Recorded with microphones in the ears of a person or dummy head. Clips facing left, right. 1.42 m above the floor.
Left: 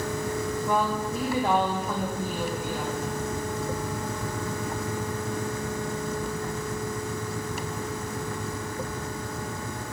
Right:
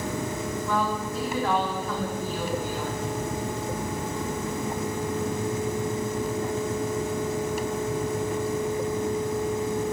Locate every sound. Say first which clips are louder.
0.7 s a woman speaking: left 1 dB; 15° left (ahead or behind), 1.4 m